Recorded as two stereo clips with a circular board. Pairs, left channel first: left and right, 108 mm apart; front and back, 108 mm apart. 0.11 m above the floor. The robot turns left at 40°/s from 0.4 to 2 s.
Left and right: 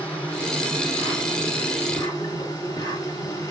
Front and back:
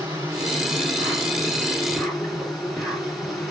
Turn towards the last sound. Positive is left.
turn(degrees=90)